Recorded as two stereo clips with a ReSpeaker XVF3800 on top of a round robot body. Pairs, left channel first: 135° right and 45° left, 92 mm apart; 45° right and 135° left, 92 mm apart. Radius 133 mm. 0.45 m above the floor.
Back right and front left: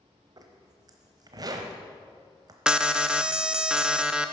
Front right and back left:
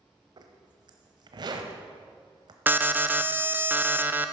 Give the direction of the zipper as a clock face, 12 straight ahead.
9 o'clock.